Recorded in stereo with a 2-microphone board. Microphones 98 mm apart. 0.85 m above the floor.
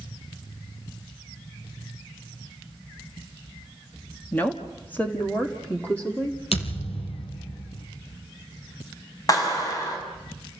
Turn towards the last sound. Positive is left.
turn(degrees=40)  # may be behind; listen again after turning